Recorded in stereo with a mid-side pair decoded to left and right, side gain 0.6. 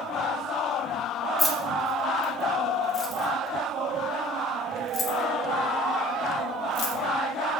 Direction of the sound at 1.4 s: 20° left.